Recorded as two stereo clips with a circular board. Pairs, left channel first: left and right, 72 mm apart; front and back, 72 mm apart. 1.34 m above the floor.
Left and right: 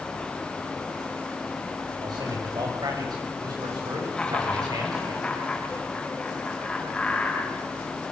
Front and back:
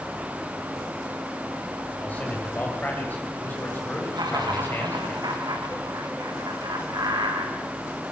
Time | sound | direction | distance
2.0 | a man speaking | 70° right | 8 m
4.1 | laughter | 170° left | 7.5 m